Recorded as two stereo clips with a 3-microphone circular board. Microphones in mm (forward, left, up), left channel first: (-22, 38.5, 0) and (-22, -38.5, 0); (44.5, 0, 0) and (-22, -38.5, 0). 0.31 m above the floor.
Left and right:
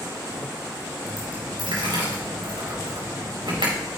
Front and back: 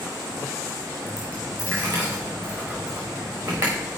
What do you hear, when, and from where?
1.1 s a dropped coin: 90° right, 4 m